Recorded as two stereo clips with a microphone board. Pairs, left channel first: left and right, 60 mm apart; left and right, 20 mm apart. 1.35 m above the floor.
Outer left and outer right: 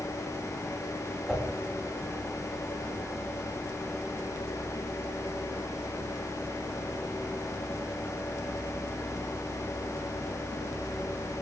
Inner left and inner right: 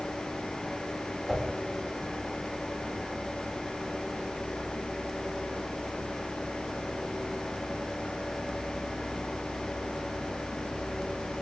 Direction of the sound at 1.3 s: 5° right (ahead or behind).